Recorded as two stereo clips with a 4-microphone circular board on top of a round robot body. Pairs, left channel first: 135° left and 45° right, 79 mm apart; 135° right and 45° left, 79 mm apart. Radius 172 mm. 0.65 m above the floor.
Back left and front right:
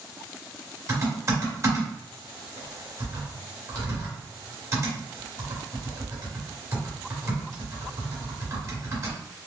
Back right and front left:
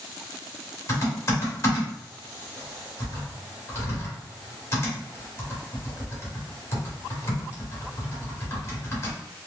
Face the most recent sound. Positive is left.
turn(degrees=-85)